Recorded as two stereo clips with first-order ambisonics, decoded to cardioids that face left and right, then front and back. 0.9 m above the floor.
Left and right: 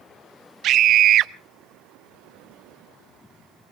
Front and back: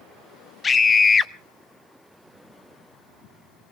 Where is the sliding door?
I don't hear a sliding door.